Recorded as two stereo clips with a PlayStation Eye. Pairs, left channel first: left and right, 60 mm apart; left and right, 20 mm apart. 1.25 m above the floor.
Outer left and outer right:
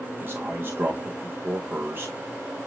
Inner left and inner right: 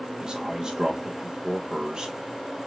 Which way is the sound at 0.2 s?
35° right (ahead or behind).